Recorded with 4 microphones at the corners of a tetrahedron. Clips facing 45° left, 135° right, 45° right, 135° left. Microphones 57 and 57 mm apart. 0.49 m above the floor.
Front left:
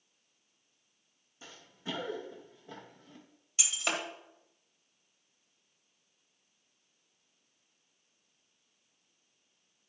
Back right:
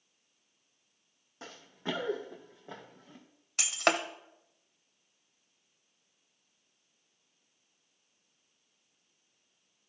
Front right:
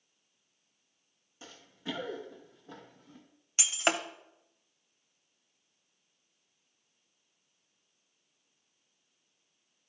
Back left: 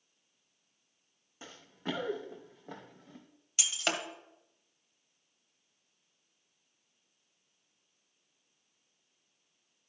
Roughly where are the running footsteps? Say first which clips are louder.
Back right 4 dB, back left 2 dB; behind.